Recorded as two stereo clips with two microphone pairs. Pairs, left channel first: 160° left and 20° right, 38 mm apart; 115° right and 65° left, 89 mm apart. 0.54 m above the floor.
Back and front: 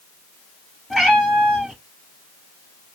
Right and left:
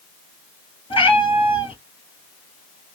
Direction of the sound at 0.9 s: 110° right.